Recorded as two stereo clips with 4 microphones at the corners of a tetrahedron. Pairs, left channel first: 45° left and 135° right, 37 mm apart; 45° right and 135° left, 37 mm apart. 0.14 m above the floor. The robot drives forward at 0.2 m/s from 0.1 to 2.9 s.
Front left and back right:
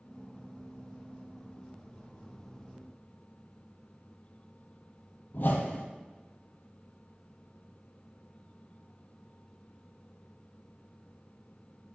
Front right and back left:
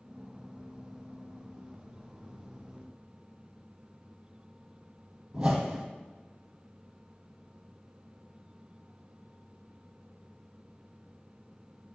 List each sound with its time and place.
5.3 s a whoosh: 75° left, 1.0 m